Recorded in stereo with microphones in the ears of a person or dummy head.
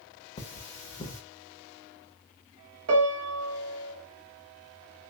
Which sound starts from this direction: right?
A piano, at 2.9 s.